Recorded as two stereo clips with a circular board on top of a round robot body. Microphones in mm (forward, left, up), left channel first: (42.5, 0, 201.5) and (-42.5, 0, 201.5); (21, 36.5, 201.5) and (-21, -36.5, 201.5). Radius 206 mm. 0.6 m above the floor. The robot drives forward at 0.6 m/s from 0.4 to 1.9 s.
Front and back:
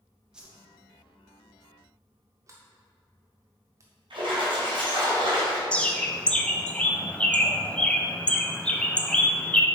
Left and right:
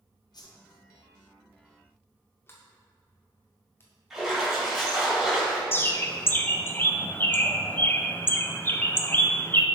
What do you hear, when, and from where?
0.3 s a whoosh: 100° left, 0.9 m; by 0.6 s 105° left, 0.9 m
2.5 s a sliding door: 125° left, 0.6 m
4.1 s a splash: 155° left, 2 m
5.7 s a bird: 55° left, 0.9 m